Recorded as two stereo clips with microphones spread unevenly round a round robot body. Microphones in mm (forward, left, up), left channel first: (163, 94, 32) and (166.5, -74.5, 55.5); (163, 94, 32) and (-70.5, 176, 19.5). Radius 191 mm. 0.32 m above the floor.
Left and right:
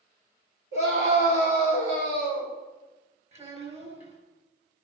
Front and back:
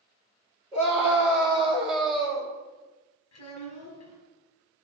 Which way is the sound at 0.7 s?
115° right.